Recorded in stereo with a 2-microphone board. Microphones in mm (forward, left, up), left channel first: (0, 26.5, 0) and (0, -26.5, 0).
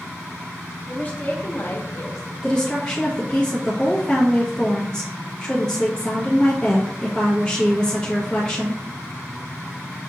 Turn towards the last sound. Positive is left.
turn(degrees=15)  # may be behind; listen again after turning